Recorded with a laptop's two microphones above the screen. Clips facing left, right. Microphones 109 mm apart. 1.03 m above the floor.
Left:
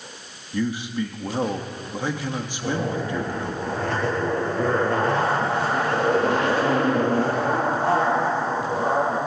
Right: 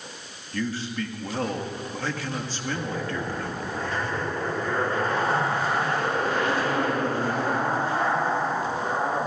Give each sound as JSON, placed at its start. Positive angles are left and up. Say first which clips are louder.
{"t": 0.5, "sound": "a man speaking", "louder": "left 4 dB", "side_deg": 15, "distance_m": 1.7}
{"t": 2.6, "sound": "a zipper", "louder": "left 6 dB", "side_deg": 75, "distance_m": 8.0}